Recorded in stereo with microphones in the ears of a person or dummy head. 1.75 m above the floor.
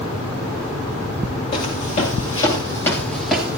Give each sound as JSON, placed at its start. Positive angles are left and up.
{"t": 1.5, "sound": "footsteps", "side_deg": 40, "distance_m": 3.0}